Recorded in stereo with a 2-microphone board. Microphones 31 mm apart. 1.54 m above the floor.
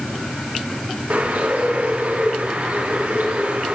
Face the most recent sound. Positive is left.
turn(degrees=-75)  # may be behind; listen again after turning